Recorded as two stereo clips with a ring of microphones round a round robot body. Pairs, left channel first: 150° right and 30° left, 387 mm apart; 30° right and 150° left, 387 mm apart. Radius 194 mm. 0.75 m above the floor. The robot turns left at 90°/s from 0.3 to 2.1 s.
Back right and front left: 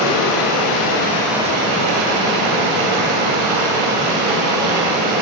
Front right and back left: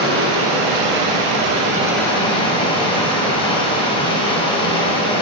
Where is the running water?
150° right, 2.5 m; by 5.2 s 45° left, 2.5 m.